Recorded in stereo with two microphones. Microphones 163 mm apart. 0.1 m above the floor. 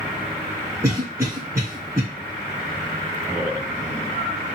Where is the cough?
20° right (ahead or behind), 1.5 m.